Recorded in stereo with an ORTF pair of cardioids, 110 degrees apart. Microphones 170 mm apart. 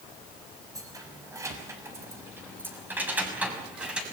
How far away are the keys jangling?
About 6 m.